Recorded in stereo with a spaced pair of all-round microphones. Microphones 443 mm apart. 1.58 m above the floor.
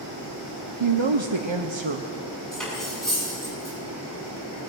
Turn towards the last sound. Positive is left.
turn(degrees=0)  # may be behind; listen again after turning